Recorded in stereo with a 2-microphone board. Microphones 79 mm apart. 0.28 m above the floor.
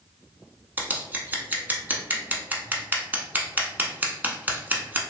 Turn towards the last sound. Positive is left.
turn(degrees=-20)  # may be behind; listen again after turning